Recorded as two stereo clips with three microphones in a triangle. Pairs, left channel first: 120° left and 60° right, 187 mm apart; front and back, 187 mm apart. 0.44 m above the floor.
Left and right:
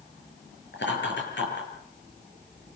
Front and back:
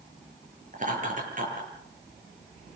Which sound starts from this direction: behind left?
Laughter, at 0.7 s.